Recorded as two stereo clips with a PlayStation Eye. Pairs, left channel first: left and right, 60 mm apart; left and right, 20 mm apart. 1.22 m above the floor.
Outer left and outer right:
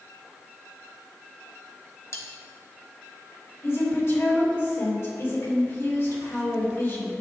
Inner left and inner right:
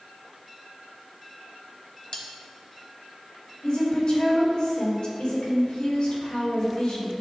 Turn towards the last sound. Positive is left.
turn(degrees=50)  # may be behind; listen again after turning